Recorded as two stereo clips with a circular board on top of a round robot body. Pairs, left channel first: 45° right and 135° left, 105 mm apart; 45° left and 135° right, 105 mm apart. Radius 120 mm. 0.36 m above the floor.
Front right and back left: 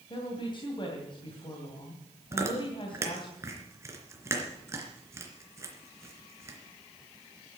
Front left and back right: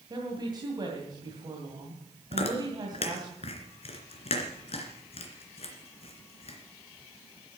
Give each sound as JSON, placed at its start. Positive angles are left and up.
{"t": 0.1, "sound": "a woman speaking", "azimuth_deg": -85, "distance_m": 3.0}
{"t": 2.3, "sound": "chewing", "azimuth_deg": 70, "distance_m": 3.0}